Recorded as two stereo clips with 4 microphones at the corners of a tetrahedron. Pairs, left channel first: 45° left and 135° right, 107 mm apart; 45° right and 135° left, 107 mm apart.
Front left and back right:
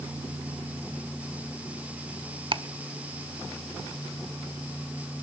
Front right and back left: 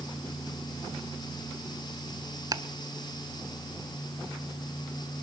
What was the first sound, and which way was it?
Ticking, 170° right.